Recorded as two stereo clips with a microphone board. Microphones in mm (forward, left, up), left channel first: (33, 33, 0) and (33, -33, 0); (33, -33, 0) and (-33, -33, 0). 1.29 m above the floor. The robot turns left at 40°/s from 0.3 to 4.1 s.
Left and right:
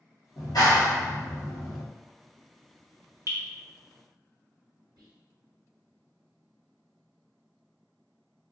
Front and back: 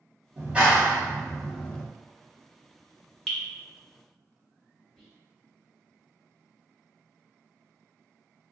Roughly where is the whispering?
Right.